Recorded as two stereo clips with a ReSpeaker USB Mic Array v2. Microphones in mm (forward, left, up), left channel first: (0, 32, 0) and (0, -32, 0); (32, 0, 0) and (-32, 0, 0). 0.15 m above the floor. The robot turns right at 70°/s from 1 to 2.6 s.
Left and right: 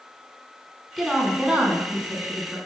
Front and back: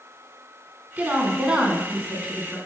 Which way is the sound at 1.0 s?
175° right.